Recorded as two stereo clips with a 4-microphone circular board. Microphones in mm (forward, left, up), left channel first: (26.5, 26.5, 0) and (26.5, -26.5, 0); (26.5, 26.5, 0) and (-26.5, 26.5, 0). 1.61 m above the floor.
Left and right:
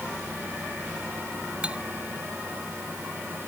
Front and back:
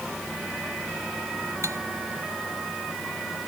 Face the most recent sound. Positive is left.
turn(degrees=-155)